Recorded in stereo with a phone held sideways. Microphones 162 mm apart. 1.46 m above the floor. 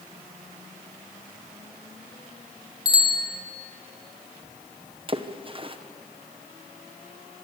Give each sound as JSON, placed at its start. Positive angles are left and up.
{"t": 2.9, "sound": "a bicycle bell", "side_deg": 25, "distance_m": 2.0}
{"t": 5.1, "sound": "a splash", "side_deg": -35, "distance_m": 1.1}